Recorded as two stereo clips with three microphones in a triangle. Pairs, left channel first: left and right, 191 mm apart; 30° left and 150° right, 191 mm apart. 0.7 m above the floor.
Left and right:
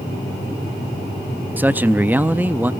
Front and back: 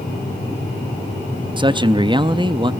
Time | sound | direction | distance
1.6 | a man speaking | 160° right | 0.6 m